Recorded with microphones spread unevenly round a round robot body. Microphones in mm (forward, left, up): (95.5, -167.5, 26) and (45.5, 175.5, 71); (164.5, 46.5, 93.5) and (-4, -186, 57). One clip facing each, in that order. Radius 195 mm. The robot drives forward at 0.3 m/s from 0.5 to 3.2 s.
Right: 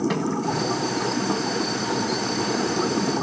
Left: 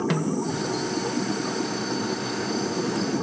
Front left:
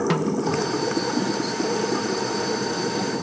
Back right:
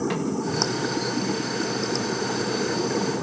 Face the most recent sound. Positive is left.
turn(degrees=95)